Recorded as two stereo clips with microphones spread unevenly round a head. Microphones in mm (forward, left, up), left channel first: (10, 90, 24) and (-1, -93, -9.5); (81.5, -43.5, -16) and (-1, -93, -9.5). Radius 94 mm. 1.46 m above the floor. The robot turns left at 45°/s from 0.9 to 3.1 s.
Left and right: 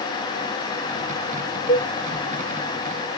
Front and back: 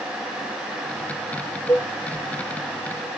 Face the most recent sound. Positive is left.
turn(degrees=30)